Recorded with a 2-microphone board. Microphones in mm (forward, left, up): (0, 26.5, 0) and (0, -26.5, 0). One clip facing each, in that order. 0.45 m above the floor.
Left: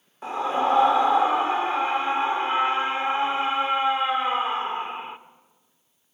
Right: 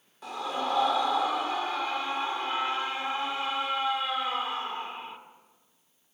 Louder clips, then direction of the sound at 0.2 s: Left 8 dB; 35° left (ahead or behind).